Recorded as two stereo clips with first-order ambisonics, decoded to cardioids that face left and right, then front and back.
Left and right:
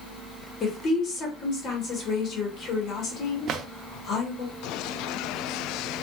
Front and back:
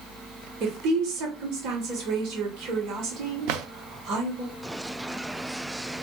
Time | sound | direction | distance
0.6 | a woman speaking | 150° left | 2 m
3.5 | a drawer | 145° right | 0.6 m